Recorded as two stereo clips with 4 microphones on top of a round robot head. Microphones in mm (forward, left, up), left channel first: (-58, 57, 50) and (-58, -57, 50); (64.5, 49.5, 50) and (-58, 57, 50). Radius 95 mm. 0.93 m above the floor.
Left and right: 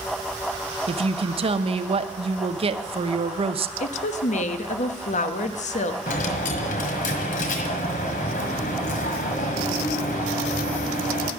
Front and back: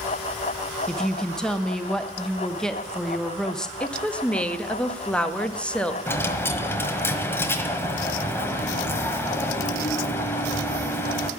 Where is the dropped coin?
70° left, 1.5 m.